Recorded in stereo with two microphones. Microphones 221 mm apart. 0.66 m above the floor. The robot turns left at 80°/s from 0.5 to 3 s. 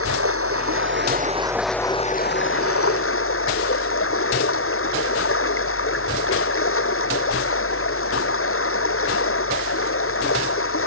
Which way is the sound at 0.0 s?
85° right.